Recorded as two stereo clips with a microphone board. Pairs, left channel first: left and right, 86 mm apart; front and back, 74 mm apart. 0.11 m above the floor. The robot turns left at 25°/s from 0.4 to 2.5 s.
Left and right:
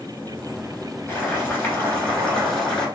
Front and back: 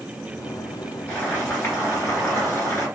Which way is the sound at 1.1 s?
45° left.